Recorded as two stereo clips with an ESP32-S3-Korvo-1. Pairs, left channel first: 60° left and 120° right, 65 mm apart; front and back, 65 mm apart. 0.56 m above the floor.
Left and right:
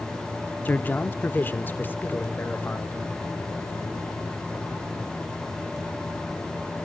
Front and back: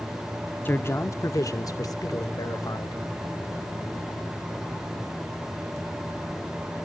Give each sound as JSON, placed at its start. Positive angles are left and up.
{"t": 0.7, "sound": "a man speaking", "azimuth_deg": 30, "distance_m": 0.9}